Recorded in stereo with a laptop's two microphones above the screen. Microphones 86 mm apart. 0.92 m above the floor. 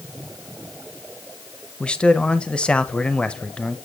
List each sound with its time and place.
1.8 s a man speaking: 10° left (ahead or behind), 0.7 m